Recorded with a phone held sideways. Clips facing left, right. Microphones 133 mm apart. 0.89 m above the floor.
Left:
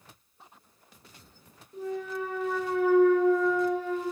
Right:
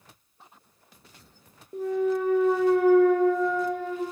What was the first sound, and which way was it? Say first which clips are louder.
A clunk: right 8 dB; 55° right (ahead or behind).